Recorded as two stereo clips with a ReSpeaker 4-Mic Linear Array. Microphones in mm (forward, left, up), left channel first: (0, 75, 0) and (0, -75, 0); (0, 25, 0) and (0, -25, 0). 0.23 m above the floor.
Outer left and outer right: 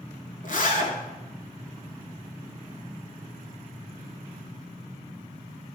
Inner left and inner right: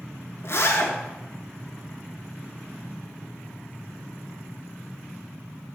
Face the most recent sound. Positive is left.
turn(degrees=65)  # may be behind; listen again after turning